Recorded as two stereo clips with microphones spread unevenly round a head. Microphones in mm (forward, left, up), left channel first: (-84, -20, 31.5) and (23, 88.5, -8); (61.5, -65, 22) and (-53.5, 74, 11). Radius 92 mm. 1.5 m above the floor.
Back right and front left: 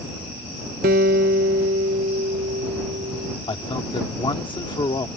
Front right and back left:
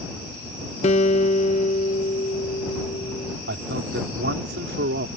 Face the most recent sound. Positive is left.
turn(degrees=170)